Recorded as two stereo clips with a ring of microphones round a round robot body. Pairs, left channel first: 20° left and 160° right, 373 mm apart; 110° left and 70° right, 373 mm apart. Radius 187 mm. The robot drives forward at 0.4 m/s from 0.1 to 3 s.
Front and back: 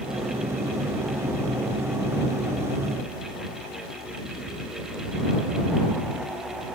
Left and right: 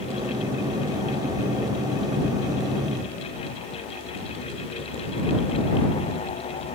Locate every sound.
Only background noise.